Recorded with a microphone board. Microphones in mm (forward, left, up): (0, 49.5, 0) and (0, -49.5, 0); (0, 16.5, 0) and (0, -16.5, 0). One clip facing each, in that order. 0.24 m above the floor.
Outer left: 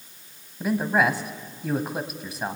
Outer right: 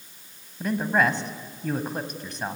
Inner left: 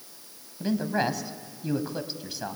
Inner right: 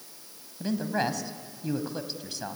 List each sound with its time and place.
0.6 s a man speaking: 5° left (ahead or behind), 1.3 m